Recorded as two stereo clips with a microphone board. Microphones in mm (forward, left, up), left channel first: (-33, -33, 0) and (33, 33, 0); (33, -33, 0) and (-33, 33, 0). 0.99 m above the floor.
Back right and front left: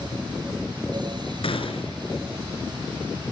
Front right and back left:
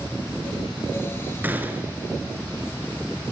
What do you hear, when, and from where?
1.4 s a gunshot: 155° right, 4 m